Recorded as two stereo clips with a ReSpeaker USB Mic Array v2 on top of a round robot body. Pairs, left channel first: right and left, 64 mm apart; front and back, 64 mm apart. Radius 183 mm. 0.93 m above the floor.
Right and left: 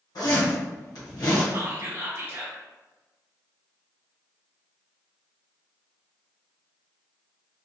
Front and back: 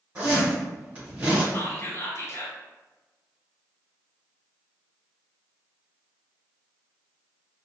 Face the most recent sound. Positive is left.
turn(degrees=40)